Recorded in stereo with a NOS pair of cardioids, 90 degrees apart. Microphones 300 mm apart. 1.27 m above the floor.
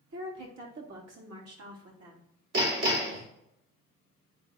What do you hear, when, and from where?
0.1 s a woman speaking: 65° right, 3.5 m; by 2.3 s 50° right, 3 m
2.5 s hammering: 55° right, 2.5 m